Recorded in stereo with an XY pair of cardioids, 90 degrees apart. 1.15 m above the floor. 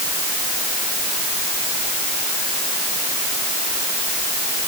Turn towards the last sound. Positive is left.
No sound to turn to.